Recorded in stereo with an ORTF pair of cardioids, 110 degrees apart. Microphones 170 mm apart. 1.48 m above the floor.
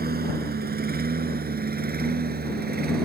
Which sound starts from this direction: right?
A lawn mower, at 0.0 s.